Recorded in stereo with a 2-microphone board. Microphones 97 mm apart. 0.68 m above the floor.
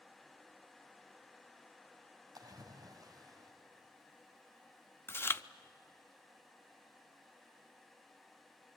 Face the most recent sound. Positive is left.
turn(degrees=25)  # may be behind; listen again after turning